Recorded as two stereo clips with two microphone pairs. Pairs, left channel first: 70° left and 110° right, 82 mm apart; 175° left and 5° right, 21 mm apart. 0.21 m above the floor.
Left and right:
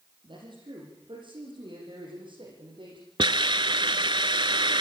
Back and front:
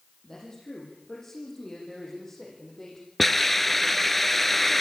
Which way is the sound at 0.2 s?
125° right.